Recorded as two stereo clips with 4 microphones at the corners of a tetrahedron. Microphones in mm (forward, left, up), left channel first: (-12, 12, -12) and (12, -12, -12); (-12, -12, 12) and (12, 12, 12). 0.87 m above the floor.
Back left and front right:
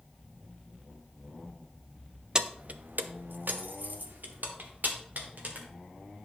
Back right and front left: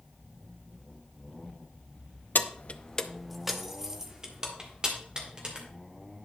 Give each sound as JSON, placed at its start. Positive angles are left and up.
{"t": 2.4, "sound": "keys jangling", "azimuth_deg": -115, "distance_m": 0.5}